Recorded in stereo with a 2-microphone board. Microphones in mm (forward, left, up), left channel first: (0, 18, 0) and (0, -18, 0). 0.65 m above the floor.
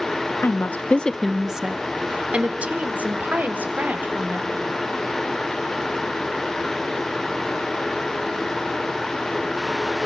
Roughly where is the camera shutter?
I don't hear a camera shutter.